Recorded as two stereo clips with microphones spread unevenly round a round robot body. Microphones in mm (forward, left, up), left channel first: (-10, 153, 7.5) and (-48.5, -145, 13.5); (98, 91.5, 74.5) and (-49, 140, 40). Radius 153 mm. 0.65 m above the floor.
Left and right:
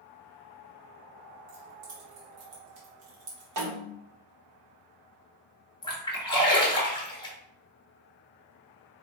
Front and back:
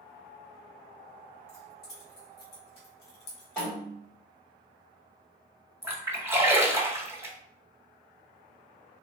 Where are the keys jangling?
75° right, 1.9 m; by 3.7 s 30° right, 1.1 m.